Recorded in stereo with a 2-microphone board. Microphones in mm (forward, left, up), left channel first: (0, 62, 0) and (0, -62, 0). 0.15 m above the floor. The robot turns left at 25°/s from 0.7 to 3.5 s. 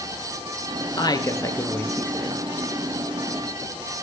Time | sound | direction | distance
1.0 | a woman speaking | 40° left | 2.5 m